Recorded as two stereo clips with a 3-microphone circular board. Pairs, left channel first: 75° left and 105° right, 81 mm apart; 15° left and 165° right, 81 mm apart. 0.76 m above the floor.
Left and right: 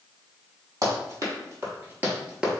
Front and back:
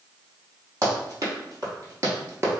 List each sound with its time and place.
0.8 s running footsteps: 135° right, 1.4 m; by 2.6 s 175° left, 0.8 m